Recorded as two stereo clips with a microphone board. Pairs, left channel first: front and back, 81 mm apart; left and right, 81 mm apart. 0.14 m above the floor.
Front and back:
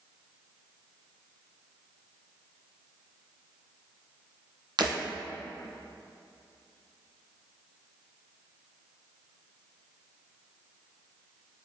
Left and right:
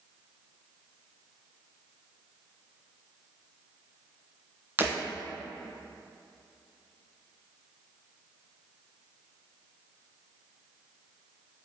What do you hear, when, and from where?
4.8 s breaking glass: 155° right, 2.0 m